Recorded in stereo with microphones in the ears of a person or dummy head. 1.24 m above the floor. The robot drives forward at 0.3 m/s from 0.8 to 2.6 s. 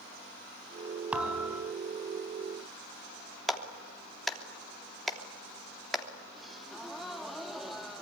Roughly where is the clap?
Centre.